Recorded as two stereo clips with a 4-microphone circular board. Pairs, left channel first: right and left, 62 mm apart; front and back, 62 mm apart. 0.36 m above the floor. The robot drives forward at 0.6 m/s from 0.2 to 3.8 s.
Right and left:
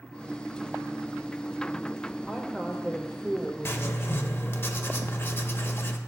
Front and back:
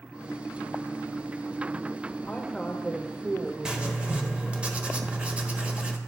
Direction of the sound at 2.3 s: 20° right.